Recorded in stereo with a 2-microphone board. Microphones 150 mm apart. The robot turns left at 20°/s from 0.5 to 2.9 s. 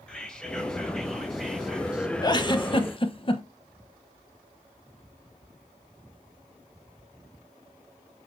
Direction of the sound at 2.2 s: 30° left (ahead or behind).